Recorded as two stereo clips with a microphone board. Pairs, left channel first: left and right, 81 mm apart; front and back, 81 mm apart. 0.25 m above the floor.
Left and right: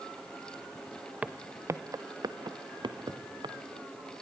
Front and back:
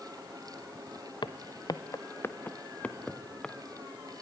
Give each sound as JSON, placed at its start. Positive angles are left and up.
{"t": 1.2, "sound": "footsteps", "azimuth_deg": -15, "distance_m": 1.3}